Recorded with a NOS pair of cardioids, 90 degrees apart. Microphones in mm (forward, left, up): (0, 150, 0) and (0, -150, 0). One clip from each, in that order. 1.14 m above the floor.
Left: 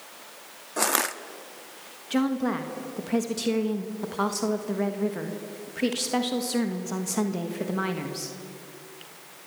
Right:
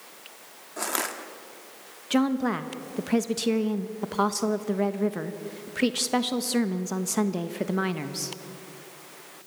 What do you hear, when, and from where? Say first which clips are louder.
0.8 s crushing: left 4 dB; 40° left, 1.2 m
2.1 s a woman speaking: right 1 dB; 30° right, 1.4 m